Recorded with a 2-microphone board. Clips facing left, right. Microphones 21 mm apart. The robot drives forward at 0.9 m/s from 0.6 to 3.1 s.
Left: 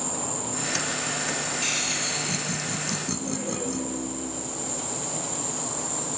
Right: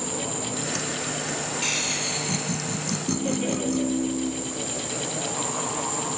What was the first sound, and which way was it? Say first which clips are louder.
An insect: right 2 dB; 75° left (ahead or behind).